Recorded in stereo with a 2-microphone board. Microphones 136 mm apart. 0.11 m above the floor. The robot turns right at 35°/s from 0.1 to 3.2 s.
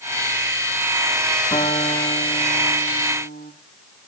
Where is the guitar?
35° left, 5.5 m; by 3.5 s 90° left, 5.5 m.